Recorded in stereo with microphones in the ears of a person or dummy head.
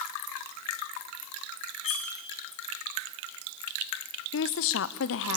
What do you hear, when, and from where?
1.8 s cutlery clinking: 65° left (ahead or behind), 1.9 m
4.3 s a woman speaking: 60° left (ahead or behind), 0.7 m